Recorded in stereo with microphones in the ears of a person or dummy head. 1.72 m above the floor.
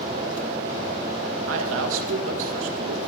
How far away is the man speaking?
About 2 m.